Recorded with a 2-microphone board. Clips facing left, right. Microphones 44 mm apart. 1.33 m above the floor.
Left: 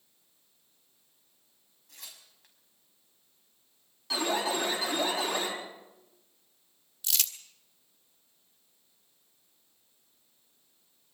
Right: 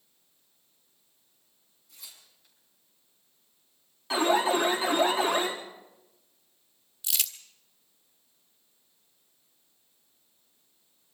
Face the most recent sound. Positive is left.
turn(degrees=0)  # may be behind; listen again after turning